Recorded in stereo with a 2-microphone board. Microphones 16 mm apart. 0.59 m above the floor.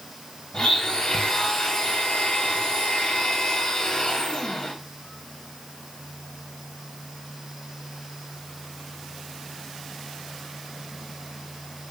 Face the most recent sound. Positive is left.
turn(degrees=65)  # may be behind; listen again after turning